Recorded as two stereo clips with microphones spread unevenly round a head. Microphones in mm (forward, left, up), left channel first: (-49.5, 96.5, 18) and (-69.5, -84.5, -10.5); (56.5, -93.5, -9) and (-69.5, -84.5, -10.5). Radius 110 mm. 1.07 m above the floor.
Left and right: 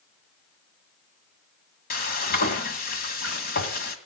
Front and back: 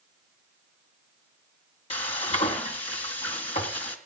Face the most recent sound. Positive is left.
turn(degrees=45)